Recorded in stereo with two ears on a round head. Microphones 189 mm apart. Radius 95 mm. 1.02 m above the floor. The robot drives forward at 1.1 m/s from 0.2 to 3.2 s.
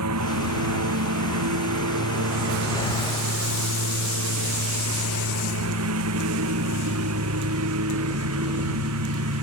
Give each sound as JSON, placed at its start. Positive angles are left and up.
{"t": 0.0, "sound": "a lawn mower", "side_deg": -85}